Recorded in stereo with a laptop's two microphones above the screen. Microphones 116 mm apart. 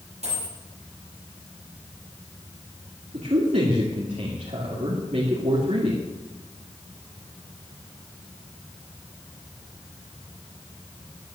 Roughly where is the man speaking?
Right.